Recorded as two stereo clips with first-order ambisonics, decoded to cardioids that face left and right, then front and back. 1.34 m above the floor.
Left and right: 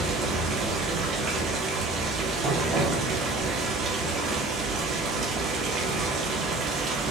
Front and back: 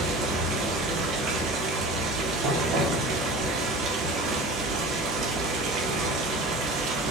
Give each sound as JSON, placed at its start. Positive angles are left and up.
{"t": 0.0, "sound": "running water", "azimuth_deg": -140, "distance_m": 1.1}